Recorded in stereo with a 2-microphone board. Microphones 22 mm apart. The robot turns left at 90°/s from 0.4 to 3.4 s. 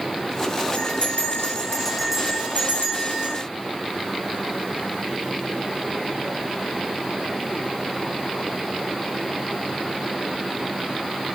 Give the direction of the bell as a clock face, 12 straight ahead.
9 o'clock.